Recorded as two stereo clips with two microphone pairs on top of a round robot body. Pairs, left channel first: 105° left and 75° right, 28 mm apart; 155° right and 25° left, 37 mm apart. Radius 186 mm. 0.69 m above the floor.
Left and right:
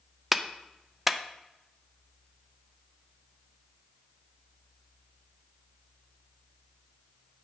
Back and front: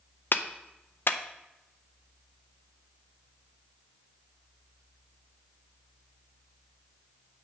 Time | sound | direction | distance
0.3 | a clap | 155° right | 0.6 m